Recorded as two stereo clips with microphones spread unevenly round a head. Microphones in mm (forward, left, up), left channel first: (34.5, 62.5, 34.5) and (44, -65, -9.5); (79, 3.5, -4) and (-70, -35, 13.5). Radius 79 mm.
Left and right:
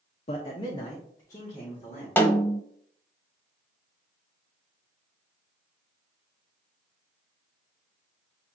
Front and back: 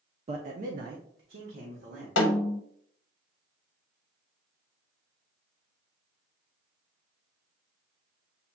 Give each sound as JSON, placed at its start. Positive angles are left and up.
{"t": 0.3, "sound": "a man speaking", "azimuth_deg": 145, "distance_m": 0.5}
{"t": 2.2, "sound": "a snare drum", "azimuth_deg": 25, "distance_m": 0.8}